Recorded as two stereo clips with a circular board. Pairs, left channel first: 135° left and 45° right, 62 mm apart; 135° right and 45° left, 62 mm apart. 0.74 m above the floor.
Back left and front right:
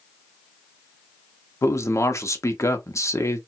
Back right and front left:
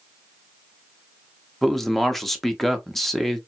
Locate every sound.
1.6 s a man speaking: 140° left, 0.9 m